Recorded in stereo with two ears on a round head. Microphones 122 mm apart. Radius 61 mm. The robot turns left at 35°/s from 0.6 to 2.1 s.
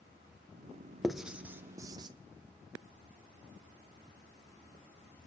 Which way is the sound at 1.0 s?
Centre (ahead or behind).